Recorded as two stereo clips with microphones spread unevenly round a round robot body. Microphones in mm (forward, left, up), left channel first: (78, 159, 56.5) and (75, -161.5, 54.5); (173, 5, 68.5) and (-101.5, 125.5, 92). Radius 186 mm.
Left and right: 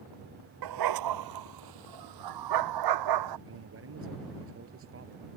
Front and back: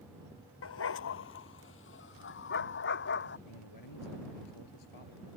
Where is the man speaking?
40° right.